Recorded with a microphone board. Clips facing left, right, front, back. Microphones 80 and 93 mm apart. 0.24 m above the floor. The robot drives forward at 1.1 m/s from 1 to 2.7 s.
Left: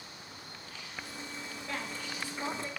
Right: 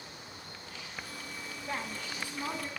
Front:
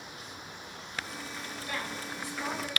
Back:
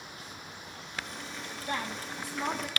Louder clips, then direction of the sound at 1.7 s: Right 2 dB, back 3 dB; 145° right.